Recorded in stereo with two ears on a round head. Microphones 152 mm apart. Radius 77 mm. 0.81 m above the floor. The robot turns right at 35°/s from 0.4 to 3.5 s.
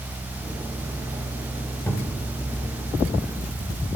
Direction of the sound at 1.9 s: 15° left (ahead or behind).